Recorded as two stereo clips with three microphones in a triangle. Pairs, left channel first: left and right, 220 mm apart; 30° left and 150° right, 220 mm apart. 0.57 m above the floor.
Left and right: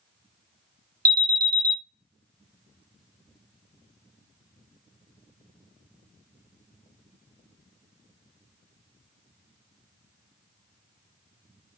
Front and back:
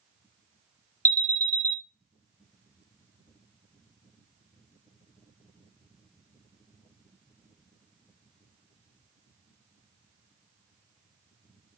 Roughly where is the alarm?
Ahead right.